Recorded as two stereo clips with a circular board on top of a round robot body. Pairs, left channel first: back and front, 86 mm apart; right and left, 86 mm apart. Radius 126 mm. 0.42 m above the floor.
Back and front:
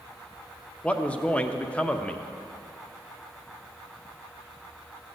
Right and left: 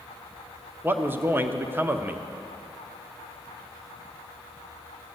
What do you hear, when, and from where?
0.8 s a man speaking: 120° left, 0.9 m